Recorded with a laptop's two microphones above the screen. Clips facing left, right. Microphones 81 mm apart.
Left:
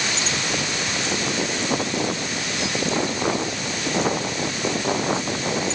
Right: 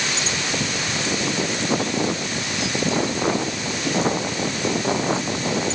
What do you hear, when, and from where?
Only background noise.